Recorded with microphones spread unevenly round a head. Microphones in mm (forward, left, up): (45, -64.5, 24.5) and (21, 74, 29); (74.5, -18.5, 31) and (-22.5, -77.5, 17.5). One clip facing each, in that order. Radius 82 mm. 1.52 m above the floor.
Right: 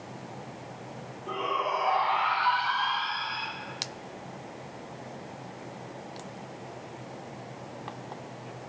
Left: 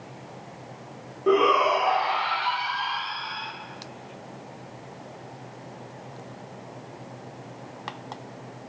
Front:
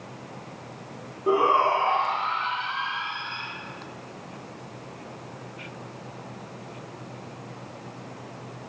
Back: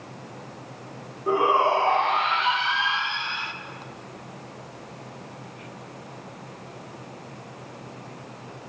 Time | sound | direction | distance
1.3 | a shout | 110° left | 0.7 m